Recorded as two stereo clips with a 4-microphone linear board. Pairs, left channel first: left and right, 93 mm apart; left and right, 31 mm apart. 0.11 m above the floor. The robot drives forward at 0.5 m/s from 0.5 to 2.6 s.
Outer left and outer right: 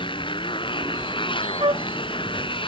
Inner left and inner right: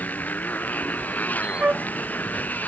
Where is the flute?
65° right (ahead or behind); by 1.9 s 60° right (ahead or behind).